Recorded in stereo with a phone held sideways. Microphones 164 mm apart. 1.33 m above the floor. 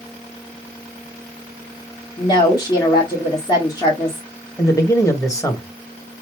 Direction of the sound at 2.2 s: 25° left (ahead or behind).